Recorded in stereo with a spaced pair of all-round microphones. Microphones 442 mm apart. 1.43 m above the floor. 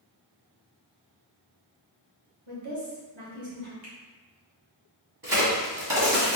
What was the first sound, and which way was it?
A woman speaking, 85° right.